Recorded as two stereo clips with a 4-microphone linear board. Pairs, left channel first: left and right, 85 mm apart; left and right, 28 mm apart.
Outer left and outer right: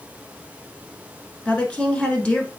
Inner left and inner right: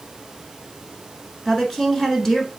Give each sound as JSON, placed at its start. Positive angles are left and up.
{"t": 1.4, "sound": "a woman speaking", "side_deg": 15, "distance_m": 1.1}